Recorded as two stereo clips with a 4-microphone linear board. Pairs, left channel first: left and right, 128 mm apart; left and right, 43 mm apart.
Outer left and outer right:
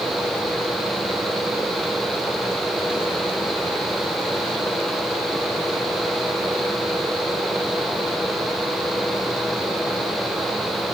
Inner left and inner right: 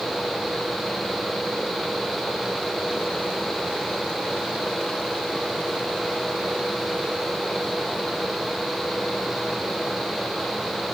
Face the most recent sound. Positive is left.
No sound to turn to.